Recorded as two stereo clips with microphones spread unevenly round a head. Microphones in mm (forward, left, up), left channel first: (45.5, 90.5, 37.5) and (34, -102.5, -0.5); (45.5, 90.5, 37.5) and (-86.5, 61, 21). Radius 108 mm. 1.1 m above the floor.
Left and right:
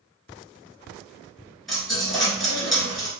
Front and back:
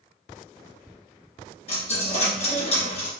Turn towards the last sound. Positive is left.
turn(degrees=10)